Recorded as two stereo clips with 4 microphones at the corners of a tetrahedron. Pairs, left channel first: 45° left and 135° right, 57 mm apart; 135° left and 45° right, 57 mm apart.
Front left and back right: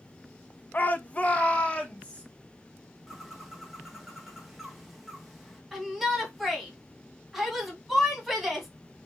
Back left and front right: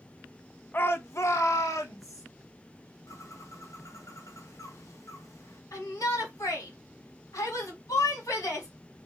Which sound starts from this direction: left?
A shout, at 0.7 s.